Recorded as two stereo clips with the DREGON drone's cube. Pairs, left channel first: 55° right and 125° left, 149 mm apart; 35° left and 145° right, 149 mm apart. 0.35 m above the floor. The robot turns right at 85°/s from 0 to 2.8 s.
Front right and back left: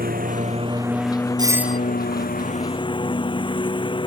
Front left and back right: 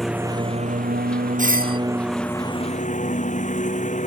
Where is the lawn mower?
120° left; by 4.1 s straight ahead.